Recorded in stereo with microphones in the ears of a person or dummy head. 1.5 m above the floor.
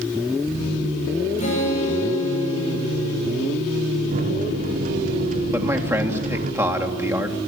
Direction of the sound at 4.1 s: 50° right (ahead or behind).